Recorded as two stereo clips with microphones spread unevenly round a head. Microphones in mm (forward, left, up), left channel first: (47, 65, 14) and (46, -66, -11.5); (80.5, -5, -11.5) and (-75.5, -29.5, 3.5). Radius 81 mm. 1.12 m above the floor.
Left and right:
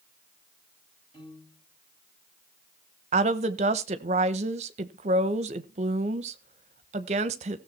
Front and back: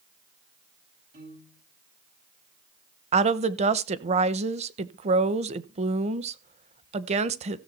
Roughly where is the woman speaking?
Behind right.